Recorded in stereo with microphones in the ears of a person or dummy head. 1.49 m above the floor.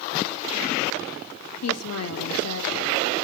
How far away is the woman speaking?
About 0.8 m.